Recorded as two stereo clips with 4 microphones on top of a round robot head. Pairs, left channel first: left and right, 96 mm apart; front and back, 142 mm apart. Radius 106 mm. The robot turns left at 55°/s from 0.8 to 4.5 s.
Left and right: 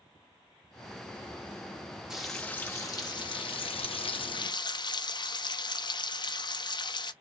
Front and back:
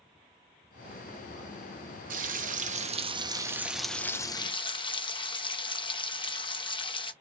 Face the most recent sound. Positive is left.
turn(degrees=55)